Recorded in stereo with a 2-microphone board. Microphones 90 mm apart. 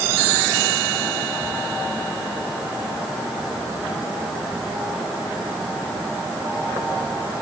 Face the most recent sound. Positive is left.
No sound to turn to.